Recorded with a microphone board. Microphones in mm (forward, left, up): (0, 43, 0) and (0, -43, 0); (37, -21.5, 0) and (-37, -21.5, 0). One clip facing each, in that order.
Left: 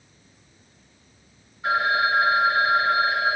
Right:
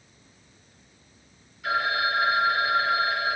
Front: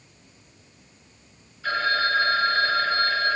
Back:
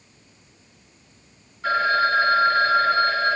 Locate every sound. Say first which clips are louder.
1.6 s a phone ringing: left 4 dB, back 4 dB; 145° left, 1.5 m